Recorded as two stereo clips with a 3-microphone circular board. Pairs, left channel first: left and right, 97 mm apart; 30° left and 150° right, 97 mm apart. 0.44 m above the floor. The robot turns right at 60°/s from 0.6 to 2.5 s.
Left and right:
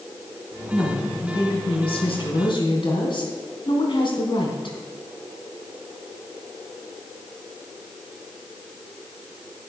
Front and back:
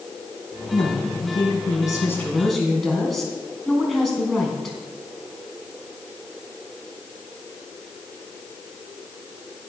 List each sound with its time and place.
0.7 s a woman speaking: 10° left, 4 m; by 4.8 s 120° left, 4 m